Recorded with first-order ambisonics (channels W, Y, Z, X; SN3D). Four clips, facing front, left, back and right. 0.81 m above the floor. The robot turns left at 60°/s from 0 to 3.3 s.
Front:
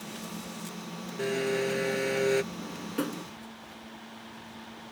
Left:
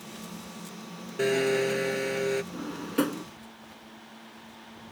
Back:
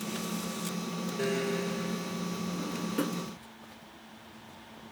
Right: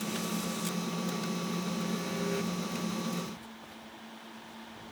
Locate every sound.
1.2 s a blender: 90° left; by 2.4 s 20° left
2.5 s a drawer: 115° left; by 3.2 s 75° left